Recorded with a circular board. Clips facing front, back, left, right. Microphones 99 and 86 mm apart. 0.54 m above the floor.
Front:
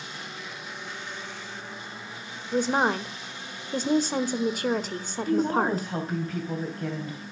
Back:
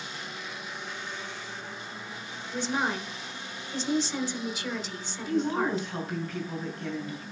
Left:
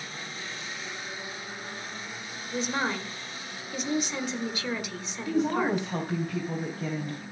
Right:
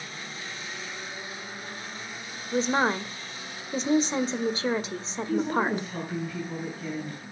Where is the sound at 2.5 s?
35° right, 1.6 m.